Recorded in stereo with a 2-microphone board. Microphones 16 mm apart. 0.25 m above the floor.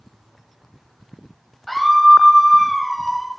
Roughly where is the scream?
Centre.